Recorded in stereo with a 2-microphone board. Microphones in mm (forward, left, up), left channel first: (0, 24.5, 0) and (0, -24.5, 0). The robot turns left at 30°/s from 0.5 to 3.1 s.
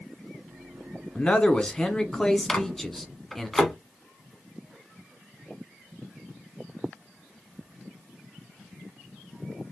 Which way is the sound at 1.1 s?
20° left (ahead or behind).